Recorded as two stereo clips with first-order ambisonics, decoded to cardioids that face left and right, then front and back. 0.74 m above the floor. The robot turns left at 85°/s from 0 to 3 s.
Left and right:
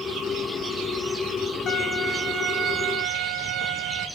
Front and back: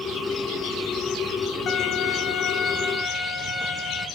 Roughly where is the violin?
Ahead left.